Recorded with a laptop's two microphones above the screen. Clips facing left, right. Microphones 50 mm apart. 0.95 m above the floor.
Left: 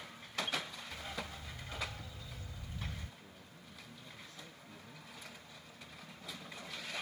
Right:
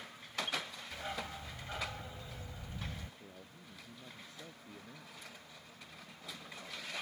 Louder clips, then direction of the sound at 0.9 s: Right 4 dB; 25° right (ahead or behind).